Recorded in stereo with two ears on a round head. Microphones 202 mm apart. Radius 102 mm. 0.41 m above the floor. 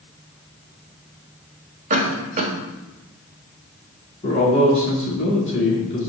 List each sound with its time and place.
1.9 s a cough: 35° right (ahead or behind), 1.4 m
4.2 s a man speaking: 30° left (ahead or behind), 3.5 m